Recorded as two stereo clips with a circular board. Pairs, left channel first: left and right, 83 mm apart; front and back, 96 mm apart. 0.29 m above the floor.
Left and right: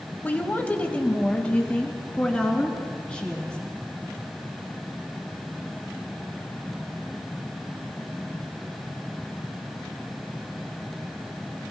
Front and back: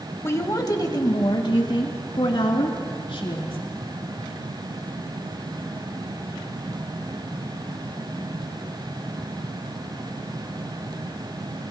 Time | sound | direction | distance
0.2 | a woman speaking | 35° left | 1.2 m